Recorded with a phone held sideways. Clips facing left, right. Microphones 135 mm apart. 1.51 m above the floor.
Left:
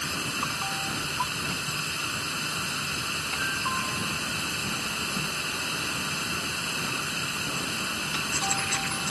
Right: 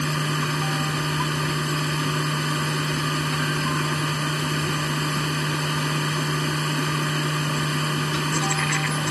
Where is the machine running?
65° right (ahead or behind).